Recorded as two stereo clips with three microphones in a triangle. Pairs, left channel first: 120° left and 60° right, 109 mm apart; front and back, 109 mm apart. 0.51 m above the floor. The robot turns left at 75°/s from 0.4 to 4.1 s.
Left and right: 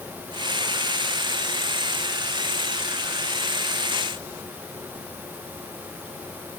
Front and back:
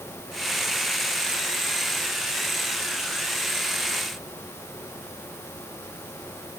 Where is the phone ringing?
No phone ringing in this recording.